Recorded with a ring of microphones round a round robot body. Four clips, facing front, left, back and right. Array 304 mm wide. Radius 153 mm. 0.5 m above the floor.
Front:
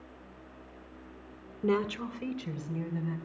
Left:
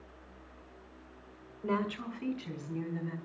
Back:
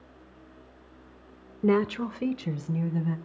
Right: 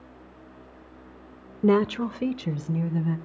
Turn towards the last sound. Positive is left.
turn(degrees=-120)